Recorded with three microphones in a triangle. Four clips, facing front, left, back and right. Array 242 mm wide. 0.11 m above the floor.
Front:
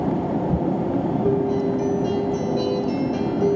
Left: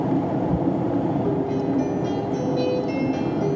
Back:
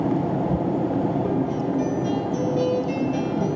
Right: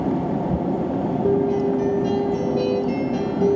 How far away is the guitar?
About 0.8 m.